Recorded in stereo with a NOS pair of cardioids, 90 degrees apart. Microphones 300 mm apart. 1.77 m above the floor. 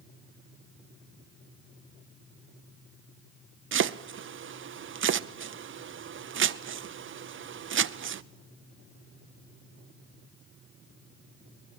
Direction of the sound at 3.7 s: 40° right.